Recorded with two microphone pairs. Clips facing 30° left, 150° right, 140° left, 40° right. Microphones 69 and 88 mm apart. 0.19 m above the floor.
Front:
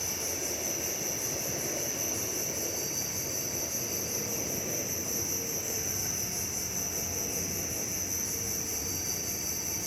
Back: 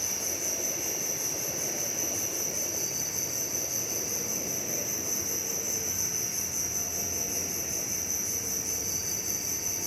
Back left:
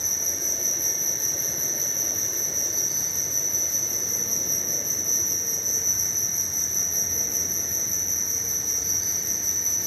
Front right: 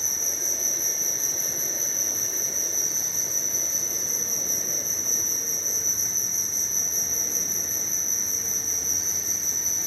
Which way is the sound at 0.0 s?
5° left.